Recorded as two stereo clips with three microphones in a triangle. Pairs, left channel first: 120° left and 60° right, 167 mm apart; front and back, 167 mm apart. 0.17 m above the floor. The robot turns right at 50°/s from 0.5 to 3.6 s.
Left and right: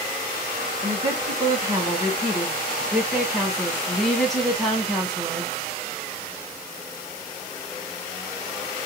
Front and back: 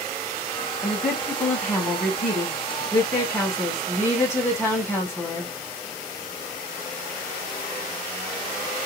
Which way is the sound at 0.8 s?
100° right.